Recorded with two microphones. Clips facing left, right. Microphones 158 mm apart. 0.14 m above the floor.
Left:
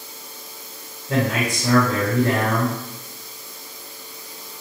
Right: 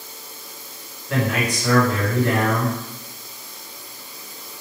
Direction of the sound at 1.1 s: 25° left (ahead or behind).